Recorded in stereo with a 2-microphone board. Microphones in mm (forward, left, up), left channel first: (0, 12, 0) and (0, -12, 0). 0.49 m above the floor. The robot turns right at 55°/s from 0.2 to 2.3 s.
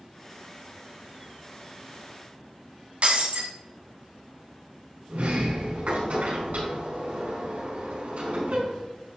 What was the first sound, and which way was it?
Breaking glass, 60° right (ahead or behind).